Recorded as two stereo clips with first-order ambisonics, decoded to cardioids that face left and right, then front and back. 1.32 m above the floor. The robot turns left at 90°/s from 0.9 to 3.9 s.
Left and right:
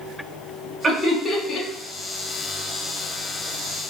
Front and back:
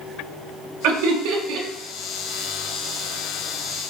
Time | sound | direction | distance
0.8 | laughter | 160° right | 1.1 m